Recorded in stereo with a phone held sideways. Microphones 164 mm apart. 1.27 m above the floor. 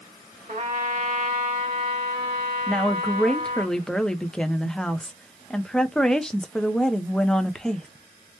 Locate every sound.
0.5 s a trumpet: 50° right (ahead or behind), 1.7 m
2.7 s a woman speaking: 5° left (ahead or behind), 0.5 m